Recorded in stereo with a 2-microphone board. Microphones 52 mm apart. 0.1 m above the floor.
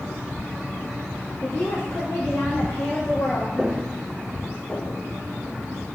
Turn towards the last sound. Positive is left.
turn(degrees=60)  # may be behind; listen again after turning